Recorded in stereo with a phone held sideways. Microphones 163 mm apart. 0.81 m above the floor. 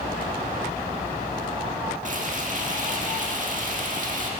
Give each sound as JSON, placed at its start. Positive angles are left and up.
{"t": 2.0, "sound": "frying", "side_deg": -55, "distance_m": 1.4}